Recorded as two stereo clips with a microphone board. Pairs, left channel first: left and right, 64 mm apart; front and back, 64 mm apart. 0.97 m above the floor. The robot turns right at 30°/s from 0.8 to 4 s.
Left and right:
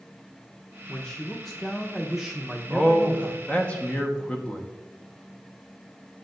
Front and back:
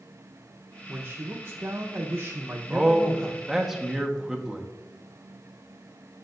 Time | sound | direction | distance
0.9 | a man speaking | 150° left | 0.7 m
2.7 | a man speaking | 85° left | 0.9 m